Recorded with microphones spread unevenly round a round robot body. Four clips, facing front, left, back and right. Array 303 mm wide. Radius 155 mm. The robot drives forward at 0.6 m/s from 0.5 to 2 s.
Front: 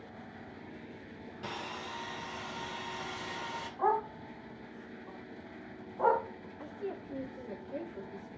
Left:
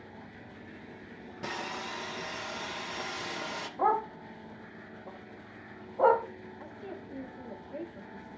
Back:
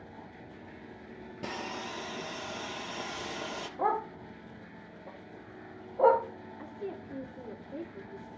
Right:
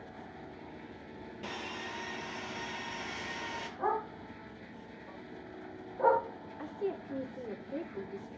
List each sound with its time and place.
1.4 s sawing: 150° left, 1.0 m; by 3.7 s 160° left, 1.3 m
3.8 s a dog barking: 140° left, 1.6 m
6.6 s a woman speaking: 110° right, 2.5 m